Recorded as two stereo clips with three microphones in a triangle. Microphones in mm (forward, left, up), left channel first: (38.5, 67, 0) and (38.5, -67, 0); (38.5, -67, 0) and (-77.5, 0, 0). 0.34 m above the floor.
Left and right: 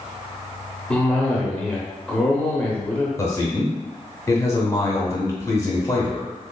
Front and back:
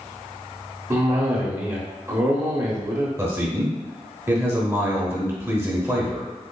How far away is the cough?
About 0.8 m.